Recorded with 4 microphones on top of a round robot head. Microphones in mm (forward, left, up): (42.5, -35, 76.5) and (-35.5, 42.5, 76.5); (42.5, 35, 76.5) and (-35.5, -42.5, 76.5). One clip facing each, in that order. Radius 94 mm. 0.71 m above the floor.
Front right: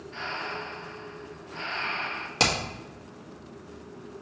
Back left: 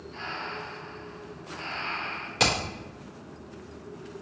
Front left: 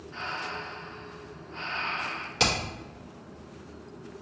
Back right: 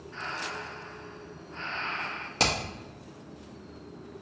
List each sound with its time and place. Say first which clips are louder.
0.1 s breathing: front right 2 dB, front left 1 dB; 30° right, 0.5 m
2.4 s hammering: even, front left 1 dB; 95° right, 1.3 m